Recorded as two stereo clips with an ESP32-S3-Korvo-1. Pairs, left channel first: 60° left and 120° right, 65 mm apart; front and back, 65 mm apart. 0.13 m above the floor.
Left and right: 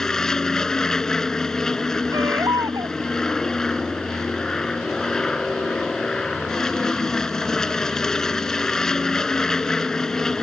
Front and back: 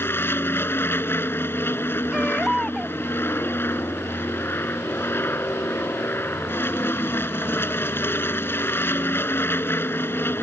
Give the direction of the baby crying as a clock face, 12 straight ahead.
3 o'clock.